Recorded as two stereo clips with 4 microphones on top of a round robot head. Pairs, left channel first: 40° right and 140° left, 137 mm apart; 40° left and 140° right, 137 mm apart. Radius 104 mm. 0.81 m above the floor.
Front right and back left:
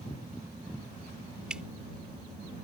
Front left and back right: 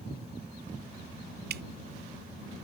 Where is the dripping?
135° right.